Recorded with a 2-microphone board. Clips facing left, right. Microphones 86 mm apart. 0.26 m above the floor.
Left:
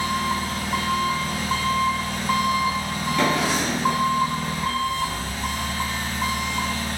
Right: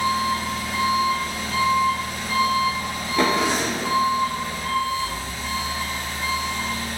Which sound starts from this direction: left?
An engine running, at 0.0 s.